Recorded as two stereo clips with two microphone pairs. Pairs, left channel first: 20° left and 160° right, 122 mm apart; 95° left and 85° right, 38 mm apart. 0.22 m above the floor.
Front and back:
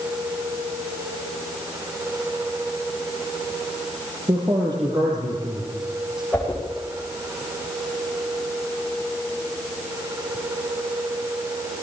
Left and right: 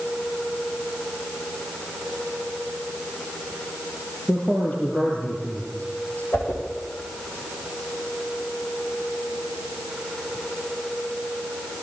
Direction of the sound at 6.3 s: 95° left.